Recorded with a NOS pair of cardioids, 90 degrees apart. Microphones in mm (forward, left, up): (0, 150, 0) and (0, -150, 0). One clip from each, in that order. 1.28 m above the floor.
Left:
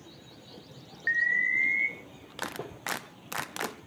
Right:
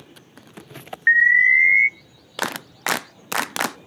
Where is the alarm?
55° right, 0.6 m.